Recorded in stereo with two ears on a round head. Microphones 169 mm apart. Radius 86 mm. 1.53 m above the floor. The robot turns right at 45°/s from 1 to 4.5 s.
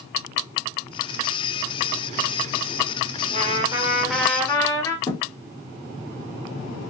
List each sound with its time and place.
3.3 s a trumpet: 40° right, 0.6 m; by 5.0 s 15° left, 0.6 m
5.1 s a thud: 15° left (ahead or behind), 0.9 m